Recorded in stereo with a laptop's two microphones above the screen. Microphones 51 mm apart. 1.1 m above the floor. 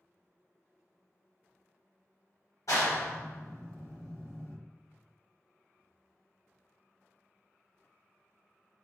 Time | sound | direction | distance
2.7 | a clap | 75° left (ahead or behind) | 0.8 m